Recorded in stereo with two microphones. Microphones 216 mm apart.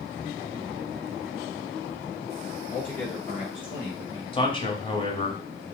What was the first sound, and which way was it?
A man speaking, 25° left (ahead or behind).